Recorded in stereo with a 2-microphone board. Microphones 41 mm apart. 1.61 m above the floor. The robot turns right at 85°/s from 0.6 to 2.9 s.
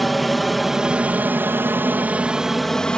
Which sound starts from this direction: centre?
An aircraft, at 0.0 s.